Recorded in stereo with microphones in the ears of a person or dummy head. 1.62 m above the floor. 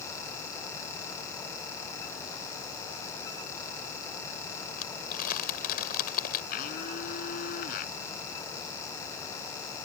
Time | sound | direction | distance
4.8 | crumpling | 55° left (ahead or behind) | ?
6.5 | a blender | 55° left (ahead or behind) | ?